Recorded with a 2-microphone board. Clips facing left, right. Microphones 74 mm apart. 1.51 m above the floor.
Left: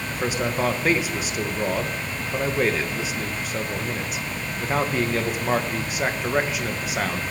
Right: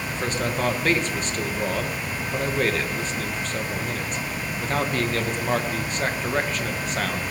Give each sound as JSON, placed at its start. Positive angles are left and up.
{"t": 0.1, "sound": "a man speaking", "side_deg": 10, "distance_m": 1.4}